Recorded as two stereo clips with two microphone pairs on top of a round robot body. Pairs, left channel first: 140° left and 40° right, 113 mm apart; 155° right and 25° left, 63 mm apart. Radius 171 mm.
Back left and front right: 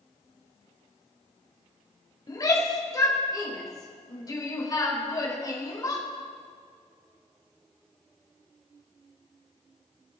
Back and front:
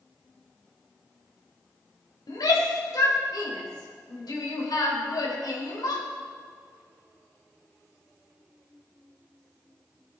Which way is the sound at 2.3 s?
165° right.